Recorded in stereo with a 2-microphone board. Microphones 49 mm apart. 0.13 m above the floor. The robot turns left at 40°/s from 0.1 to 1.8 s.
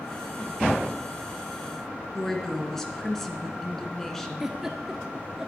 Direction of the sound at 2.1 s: 10° left (ahead or behind).